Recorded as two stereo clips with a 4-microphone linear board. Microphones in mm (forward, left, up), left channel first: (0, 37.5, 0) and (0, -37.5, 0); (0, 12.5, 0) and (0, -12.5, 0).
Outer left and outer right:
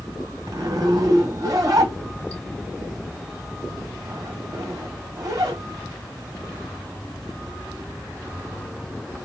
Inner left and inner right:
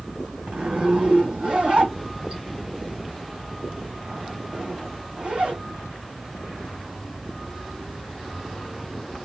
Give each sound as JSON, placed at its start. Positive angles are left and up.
{"t": 0.5, "sound": "a zipper", "side_deg": -50, "distance_m": 1.4}